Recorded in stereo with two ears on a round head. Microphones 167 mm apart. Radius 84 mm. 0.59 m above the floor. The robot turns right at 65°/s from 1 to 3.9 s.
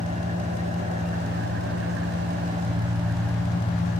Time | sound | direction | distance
0.0 | an engine running | 140° right | 2.5 m